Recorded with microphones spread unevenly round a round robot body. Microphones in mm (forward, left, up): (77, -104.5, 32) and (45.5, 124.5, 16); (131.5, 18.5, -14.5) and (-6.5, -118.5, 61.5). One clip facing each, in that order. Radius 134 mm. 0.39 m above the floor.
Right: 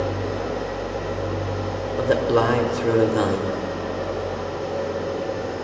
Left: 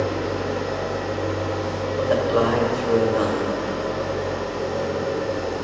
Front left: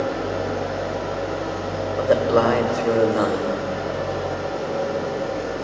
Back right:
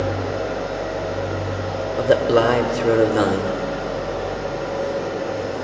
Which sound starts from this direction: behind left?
An engine running, at 0.0 s.